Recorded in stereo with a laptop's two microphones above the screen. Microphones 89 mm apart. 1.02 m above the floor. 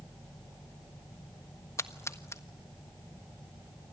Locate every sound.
1.8 s a splash: 30° left (ahead or behind), 1.4 m